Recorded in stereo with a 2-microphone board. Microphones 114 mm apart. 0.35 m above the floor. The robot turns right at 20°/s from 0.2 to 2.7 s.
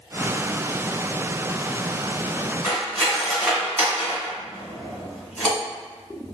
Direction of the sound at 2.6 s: 10° left (ahead or behind).